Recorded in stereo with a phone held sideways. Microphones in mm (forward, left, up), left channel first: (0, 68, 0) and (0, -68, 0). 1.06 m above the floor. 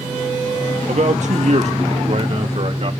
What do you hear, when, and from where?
0.9 s a man speaking: 60° right (ahead or behind), 1.4 m; by 2.9 s 50° right (ahead or behind), 3 m